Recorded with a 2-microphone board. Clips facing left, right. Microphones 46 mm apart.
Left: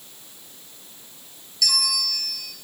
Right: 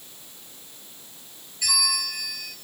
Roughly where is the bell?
Right.